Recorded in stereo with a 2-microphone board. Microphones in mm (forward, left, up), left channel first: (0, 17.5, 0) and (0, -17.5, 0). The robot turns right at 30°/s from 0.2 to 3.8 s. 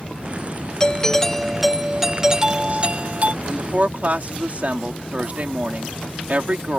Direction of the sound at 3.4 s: 40° right (ahead or behind).